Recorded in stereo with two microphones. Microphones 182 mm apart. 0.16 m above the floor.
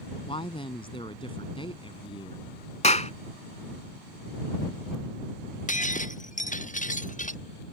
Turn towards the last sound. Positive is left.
turn(degrees=45)  # may be behind; listen again after turning